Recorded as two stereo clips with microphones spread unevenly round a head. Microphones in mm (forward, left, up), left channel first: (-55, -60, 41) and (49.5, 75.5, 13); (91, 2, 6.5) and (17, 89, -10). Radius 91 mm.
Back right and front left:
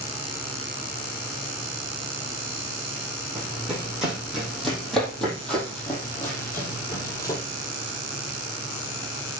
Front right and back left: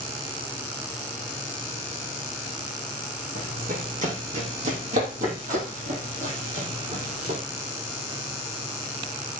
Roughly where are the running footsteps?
Behind left.